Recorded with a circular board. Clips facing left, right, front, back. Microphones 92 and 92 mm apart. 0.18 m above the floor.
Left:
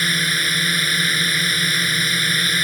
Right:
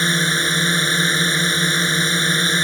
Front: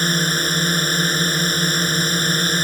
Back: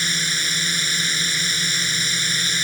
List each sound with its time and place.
0.0 s a drone: 35° right